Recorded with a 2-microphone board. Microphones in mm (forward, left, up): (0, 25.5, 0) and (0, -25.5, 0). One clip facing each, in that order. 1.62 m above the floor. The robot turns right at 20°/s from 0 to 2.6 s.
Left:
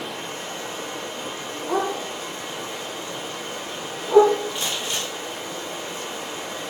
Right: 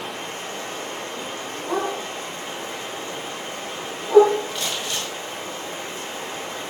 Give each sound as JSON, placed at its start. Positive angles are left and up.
{"t": 0.0, "sound": "running water", "azimuth_deg": -100, "distance_m": 0.8}
{"t": 1.7, "sound": "a dog barking", "side_deg": -10, "distance_m": 1.1}
{"t": 4.5, "sound": "crumpling", "side_deg": 25, "distance_m": 1.2}